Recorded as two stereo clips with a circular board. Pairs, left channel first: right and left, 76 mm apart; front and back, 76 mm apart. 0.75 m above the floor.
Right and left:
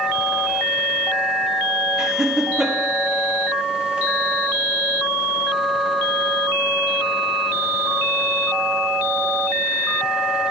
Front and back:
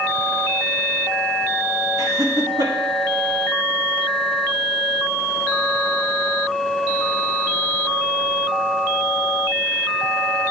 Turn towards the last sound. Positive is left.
turn(degrees=170)